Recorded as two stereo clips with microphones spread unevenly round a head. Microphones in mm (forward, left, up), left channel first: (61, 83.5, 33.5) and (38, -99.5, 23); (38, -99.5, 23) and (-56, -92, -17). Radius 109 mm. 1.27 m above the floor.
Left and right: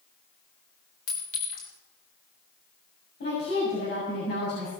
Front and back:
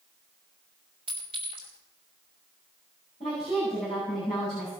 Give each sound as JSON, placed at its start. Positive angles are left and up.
{"t": 1.1, "sound": "a clink", "azimuth_deg": 115, "distance_m": 4.0}
{"t": 3.2, "sound": "a woman speaking", "azimuth_deg": 50, "distance_m": 7.5}